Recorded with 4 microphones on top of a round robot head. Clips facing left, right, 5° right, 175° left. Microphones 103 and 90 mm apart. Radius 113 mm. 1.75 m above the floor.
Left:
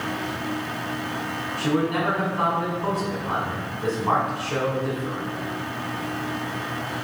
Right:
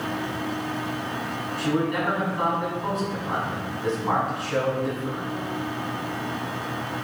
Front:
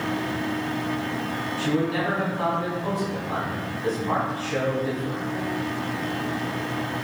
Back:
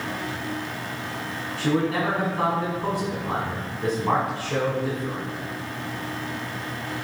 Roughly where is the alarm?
I don't hear an alarm.